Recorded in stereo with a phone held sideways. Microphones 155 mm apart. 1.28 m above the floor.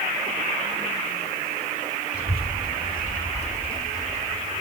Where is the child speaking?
80° left, 2.5 m; by 4.6 s 5° left (ahead or behind), 2.5 m.